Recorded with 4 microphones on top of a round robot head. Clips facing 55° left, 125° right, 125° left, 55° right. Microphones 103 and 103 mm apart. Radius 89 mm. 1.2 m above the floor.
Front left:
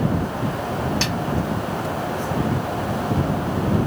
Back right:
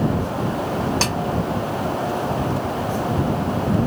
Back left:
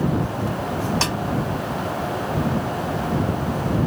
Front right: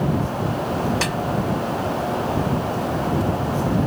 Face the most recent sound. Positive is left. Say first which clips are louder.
# back right 2 dB, even
turn(degrees=-175)